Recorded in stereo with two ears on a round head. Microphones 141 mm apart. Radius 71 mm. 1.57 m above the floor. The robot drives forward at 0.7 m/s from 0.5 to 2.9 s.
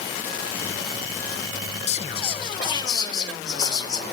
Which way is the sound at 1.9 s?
45° left (ahead or behind).